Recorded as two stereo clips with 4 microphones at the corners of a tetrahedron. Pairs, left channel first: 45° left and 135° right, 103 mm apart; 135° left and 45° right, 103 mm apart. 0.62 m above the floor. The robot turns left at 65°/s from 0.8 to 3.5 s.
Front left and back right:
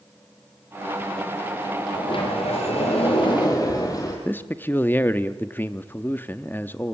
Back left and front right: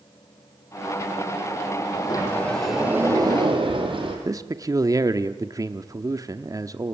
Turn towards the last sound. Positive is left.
turn(degrees=-15)